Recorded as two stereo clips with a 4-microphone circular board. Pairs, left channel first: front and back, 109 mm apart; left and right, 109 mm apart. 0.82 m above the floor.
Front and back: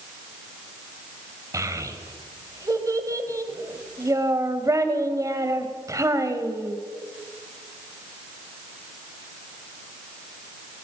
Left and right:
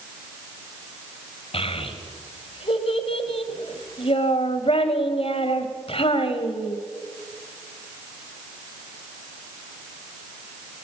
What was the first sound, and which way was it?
A child speaking, 120° left.